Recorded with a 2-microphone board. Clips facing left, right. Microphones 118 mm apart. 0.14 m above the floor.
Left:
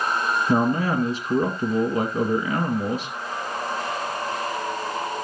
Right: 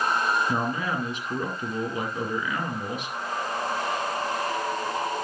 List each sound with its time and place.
0.5 s a man speaking: 35° left (ahead or behind), 1.8 m